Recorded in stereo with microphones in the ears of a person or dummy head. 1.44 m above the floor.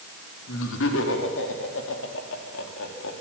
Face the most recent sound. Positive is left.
turn(degrees=70)  # may be behind; listen again after turning